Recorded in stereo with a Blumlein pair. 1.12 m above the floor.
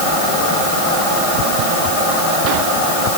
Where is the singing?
No singing in this recording.